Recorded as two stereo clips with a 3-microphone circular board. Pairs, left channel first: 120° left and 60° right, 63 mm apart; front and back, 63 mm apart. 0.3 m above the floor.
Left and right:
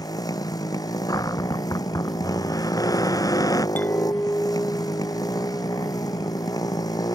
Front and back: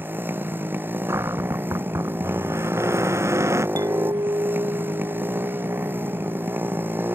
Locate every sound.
0.0 s a motorcycle: 120° left
1.1 s a cupboard door: 135° left
3.8 s a clink: straight behind